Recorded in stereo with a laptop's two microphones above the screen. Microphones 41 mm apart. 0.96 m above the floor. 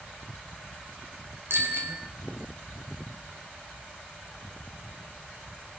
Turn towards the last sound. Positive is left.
turn(degrees=-75)  # may be behind; listen again after turning